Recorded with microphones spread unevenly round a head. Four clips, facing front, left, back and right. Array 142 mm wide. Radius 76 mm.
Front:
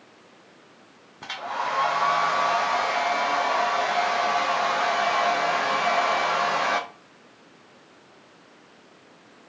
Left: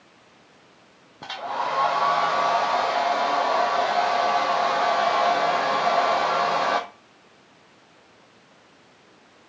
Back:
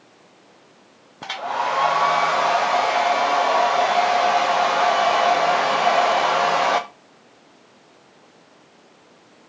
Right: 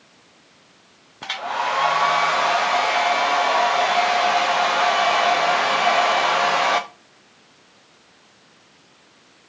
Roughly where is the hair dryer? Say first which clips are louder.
Right 3 dB, back 5 dB; behind.